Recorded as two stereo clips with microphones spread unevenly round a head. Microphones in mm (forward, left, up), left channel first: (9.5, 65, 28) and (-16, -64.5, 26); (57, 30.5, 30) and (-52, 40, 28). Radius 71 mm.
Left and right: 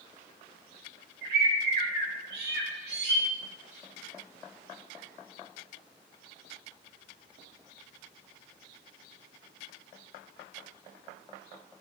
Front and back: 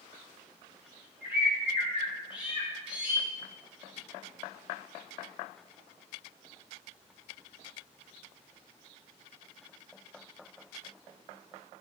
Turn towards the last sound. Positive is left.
turn(degrees=-105)